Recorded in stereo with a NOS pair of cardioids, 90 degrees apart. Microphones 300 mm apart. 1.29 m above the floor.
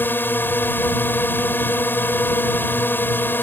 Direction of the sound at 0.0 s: 5° left.